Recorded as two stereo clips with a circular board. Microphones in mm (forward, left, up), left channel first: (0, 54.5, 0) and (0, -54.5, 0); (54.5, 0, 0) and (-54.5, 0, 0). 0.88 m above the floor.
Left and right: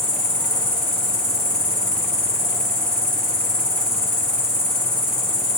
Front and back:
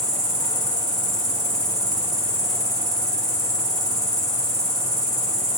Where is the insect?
80° left, 1.9 m.